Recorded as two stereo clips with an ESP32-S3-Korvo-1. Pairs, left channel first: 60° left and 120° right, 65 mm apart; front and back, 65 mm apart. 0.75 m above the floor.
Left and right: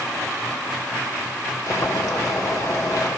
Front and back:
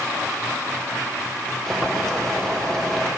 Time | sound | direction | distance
1.7 | boiling | 80° left | 1.6 m